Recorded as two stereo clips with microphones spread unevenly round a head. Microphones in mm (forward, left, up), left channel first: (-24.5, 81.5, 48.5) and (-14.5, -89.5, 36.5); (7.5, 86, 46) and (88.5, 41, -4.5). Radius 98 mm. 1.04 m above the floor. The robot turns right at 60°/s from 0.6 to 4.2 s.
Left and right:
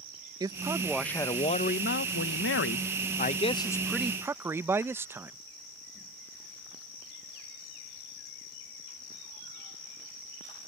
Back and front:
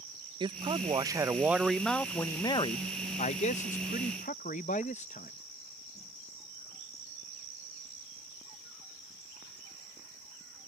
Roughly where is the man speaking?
Ahead.